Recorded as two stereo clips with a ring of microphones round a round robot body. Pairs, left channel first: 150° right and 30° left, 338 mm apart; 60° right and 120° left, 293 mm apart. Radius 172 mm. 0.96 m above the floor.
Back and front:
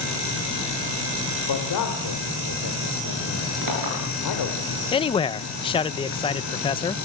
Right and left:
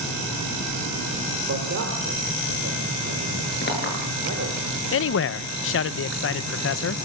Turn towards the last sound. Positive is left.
turn(degrees=-80)